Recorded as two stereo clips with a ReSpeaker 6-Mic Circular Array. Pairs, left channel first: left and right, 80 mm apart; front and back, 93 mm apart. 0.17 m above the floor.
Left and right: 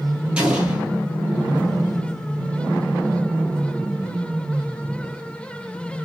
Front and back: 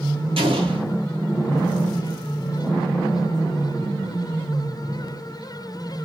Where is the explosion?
165° right, 1.3 m.